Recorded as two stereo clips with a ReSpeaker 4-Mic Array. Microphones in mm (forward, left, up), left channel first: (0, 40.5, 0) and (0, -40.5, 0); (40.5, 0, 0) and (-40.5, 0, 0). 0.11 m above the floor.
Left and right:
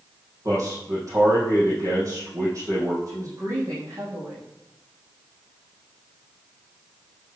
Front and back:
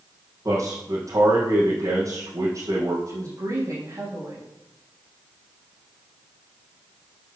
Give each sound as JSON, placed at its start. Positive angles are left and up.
{"t": 0.5, "sound": "a man speaking", "azimuth_deg": -135, "distance_m": 5.0}
{"t": 3.1, "sound": "a woman speaking", "azimuth_deg": -135, "distance_m": 5.5}